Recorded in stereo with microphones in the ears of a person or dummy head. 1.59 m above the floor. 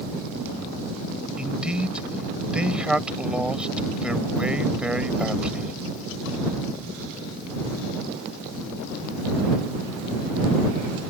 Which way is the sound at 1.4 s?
5° right (ahead or behind).